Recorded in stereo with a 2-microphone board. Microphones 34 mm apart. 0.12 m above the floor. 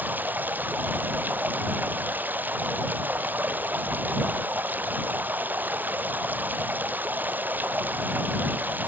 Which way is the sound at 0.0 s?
65° right (ahead or behind).